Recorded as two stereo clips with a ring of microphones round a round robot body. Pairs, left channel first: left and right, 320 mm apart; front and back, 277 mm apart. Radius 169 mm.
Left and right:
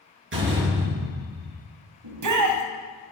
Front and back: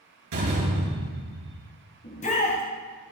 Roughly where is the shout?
Ahead right.